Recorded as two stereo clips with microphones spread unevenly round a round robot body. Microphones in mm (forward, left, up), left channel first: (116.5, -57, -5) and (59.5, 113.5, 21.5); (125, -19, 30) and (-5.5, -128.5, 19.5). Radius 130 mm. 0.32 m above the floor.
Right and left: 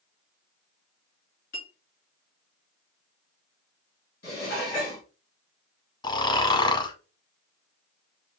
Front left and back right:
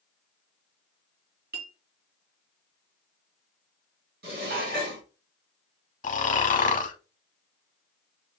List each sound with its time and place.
1.5 s a clink: 120° right, 2.5 m
4.2 s dishes clattering: 120° right, 2.5 m
6.0 s snoring: 5° right, 0.8 m